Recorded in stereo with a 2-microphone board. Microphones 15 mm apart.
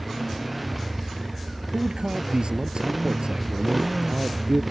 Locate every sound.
0.0 s a motorcycle: 5° right (ahead or behind)
1.7 s a man speaking: 75° right (ahead or behind)